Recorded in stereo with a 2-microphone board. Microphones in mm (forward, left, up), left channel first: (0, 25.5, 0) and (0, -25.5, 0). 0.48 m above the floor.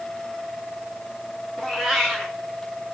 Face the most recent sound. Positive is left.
turn(degrees=0)  # may be behind; listen again after turning